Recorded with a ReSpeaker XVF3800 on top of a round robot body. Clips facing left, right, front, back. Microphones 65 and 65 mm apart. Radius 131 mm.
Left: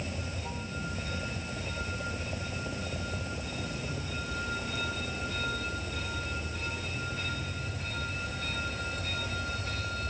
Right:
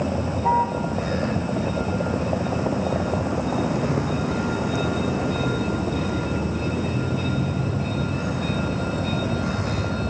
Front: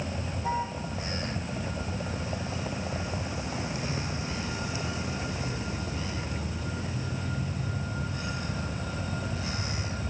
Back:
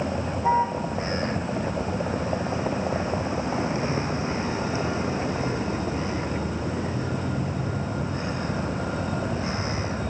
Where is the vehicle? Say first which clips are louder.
Right 16 dB, back 8 dB; 120° right.